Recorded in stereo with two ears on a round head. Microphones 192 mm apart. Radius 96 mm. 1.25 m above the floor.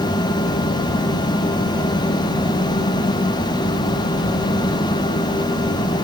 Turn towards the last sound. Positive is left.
No sound to turn to.